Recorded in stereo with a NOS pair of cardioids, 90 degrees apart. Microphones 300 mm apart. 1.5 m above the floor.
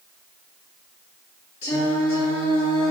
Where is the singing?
70° left, 1.8 m.